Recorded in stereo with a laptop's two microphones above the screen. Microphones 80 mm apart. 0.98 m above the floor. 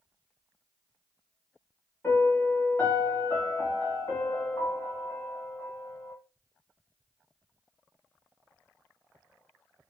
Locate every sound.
2.0 s a piano: 25° left (ahead or behind), 1.4 m